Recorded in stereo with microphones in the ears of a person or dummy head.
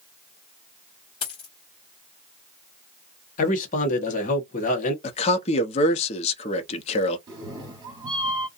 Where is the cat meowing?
25° right (ahead or behind), 1.6 m.